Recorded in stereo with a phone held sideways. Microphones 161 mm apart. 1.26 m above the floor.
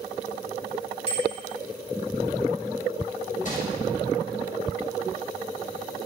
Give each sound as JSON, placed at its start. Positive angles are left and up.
{"t": 1.1, "sound": "a bicycle bell", "side_deg": 40, "distance_m": 4.5}
{"t": 3.5, "sound": "crumpling", "side_deg": 55, "distance_m": 6.0}